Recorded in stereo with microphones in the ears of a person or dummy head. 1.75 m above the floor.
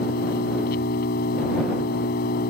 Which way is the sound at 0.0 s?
50° left (ahead or behind).